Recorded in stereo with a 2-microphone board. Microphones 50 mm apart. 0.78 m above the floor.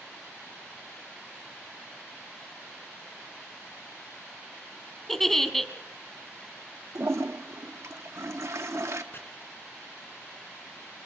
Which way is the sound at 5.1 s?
5° left (ahead or behind).